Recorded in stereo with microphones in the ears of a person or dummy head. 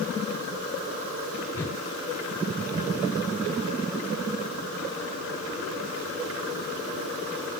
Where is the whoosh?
10° left (ahead or behind), 2 m.